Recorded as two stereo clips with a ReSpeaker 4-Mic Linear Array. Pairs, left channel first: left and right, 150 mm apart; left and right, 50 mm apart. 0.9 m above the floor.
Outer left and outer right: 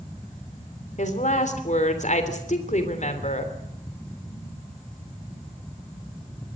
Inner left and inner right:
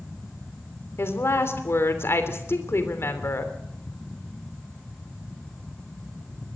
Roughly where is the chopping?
I don't hear chopping.